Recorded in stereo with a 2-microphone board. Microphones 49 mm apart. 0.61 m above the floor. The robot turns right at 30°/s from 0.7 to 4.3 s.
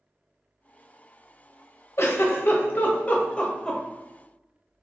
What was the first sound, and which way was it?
A giggle, 60° left (ahead or behind).